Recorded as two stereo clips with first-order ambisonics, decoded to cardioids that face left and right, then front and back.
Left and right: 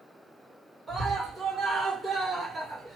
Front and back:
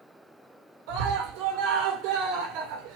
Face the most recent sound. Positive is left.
turn(degrees=-170)